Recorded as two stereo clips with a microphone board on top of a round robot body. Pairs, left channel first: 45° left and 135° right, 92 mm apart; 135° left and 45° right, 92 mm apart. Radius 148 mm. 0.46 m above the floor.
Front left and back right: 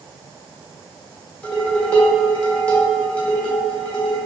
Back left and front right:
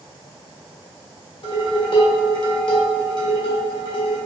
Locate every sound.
1.4 s dishes clattering: 115° left, 1.3 m